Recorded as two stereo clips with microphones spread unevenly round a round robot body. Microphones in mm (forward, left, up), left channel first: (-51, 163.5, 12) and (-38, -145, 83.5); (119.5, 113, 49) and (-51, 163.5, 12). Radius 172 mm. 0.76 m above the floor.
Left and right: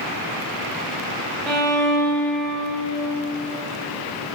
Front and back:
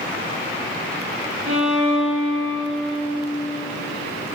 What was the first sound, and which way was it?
A violin, straight behind.